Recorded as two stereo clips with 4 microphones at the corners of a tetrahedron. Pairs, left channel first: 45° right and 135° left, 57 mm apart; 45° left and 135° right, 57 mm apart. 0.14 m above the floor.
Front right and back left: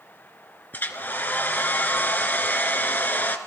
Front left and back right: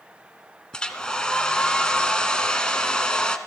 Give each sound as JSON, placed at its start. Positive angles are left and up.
{"t": 0.7, "sound": "a hair dryer", "azimuth_deg": -20, "distance_m": 0.9}